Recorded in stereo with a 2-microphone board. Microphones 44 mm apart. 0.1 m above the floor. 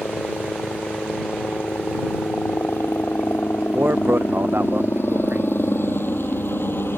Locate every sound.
0.0 s a helicopter: 65° left (ahead or behind); by 7.0 s 60° left (ahead or behind)
3.7 s a man speaking: 65° right (ahead or behind)